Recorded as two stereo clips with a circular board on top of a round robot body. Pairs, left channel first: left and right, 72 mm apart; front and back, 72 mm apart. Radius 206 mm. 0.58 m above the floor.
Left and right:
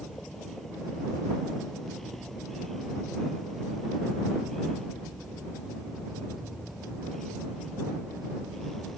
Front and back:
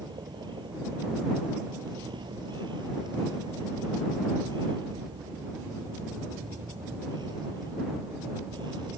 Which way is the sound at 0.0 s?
175° left.